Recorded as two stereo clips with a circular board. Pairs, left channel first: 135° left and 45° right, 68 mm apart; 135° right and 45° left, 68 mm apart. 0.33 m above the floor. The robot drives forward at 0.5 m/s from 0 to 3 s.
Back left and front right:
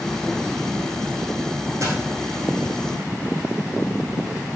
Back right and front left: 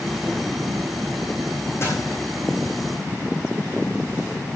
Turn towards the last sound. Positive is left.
turn(degrees=-95)